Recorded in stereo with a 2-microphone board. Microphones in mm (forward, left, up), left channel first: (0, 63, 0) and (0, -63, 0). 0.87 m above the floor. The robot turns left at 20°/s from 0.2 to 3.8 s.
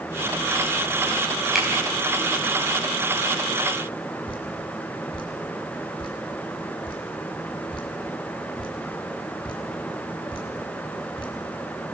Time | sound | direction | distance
1.6 | a finger snap | centre (ahead or behind) | 5 m
4.3 | dripping | 45° left (ahead or behind) | 5 m